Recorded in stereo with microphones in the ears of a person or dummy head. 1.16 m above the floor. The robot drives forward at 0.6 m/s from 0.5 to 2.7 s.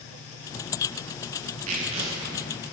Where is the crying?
I don't hear crying.